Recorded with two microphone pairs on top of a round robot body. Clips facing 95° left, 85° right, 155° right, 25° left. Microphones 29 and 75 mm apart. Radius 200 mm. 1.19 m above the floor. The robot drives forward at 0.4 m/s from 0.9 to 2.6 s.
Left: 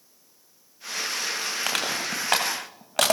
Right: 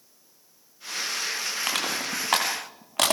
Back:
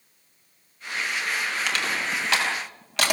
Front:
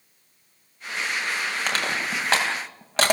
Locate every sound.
1.7 s crushing: 80° left, 5 m; by 3.1 s 85° left, 5 m